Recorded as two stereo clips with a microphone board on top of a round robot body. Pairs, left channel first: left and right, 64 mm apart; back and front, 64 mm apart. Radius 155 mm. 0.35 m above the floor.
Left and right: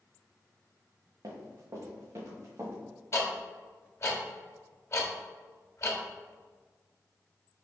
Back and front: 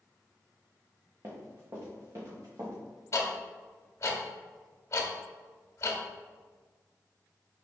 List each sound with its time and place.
1.2 s running footsteps: 50° right, 2.0 m; by 2.7 s 35° right, 3.5 m
3.1 s ticking: 135° left, 1.3 m